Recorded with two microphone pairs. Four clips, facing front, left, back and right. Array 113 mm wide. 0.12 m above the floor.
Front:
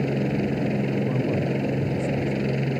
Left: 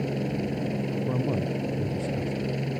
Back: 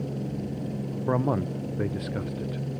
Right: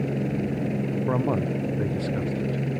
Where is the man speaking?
135° right.